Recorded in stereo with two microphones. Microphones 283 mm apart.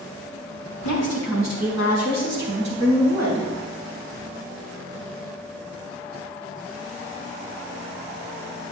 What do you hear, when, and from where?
0.8 s a woman speaking: 65° right (ahead or behind), 3 m; by 3.5 s 75° right (ahead or behind), 5 m